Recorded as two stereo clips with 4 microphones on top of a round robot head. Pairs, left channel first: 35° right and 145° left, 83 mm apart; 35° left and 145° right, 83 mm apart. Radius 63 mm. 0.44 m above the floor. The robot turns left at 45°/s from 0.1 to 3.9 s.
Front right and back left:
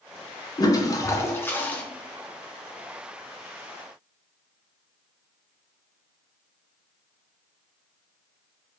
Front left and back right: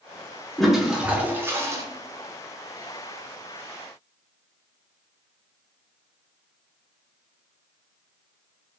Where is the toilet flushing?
50° right, 0.9 m; by 1.8 s 105° right, 0.9 m.